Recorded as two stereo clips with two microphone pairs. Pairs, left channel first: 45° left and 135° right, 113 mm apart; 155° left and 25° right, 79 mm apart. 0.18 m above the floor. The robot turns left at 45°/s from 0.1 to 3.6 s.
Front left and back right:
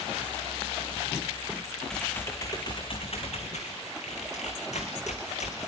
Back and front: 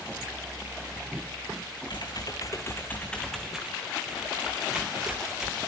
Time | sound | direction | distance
1.9 | typing on a keyboard | 135° left | 3.5 m